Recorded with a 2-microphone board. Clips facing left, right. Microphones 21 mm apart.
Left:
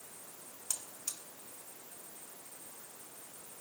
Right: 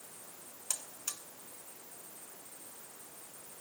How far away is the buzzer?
About 2.5 m.